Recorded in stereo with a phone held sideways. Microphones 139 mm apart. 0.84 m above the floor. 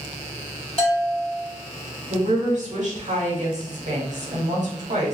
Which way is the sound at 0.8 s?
45° left (ahead or behind).